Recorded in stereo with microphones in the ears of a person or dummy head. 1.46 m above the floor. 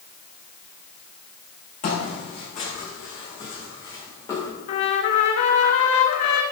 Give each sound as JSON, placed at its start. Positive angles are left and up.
{"t": 1.8, "sound": "footsteps", "side_deg": 50, "distance_m": 7.0}
{"t": 4.7, "sound": "a trumpet", "side_deg": 50, "distance_m": 1.9}